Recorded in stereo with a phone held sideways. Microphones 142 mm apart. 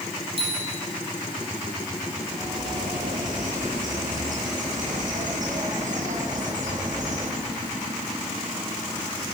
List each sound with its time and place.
0.4 s a bicycle bell: 40° right (ahead or behind), 8.5 m
2.2 s a bird: 60° right (ahead or behind), 9 m